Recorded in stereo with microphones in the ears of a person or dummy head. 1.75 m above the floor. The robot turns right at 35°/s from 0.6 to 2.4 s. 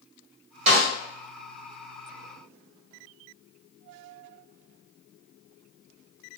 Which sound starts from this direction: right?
A snare drum, at 0.7 s.